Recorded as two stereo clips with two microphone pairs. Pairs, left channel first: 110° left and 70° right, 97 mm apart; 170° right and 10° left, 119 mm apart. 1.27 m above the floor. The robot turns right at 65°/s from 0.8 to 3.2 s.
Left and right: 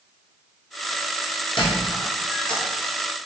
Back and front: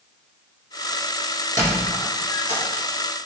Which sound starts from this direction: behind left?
A squeak, at 1.6 s.